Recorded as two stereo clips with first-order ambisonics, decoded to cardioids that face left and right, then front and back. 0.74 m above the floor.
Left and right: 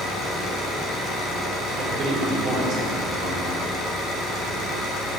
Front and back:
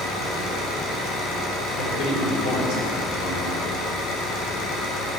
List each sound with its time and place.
0.0 s an engine running: 35° left, 3.5 m
1.8 s a man speaking: 30° right, 4 m